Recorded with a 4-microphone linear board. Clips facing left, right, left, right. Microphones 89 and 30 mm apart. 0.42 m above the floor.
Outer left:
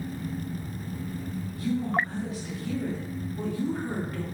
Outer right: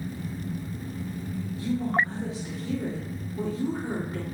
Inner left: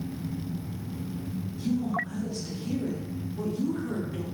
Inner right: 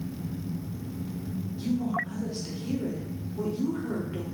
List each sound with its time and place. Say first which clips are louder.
1.6 s a woman speaking: outer right 1 dB, even; 25° right (ahead or behind), 1.1 m